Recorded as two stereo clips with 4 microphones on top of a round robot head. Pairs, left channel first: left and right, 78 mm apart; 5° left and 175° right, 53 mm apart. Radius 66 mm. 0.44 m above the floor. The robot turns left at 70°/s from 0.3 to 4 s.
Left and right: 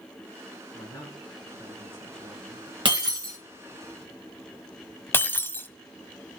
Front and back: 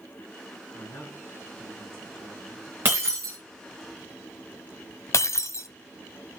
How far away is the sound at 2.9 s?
About 2.5 m.